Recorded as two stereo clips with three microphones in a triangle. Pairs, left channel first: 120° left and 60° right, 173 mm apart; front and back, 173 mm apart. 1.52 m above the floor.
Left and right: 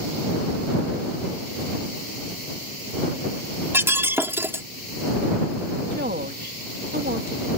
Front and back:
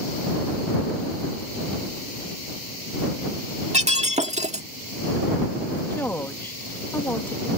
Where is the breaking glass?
135° right.